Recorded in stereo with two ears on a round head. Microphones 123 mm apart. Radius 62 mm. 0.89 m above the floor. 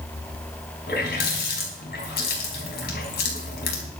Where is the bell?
No bell in this recording.